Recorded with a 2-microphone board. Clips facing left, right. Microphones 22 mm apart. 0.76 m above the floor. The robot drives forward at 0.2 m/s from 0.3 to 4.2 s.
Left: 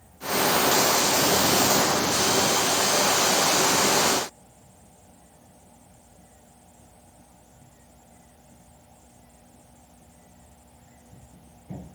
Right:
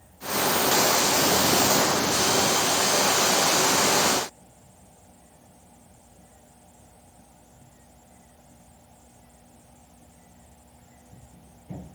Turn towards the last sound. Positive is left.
No sound to turn to.